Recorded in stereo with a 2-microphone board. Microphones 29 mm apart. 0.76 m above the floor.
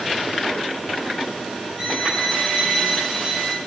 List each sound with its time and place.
1.8 s a violin: 40° right (ahead or behind), 8 m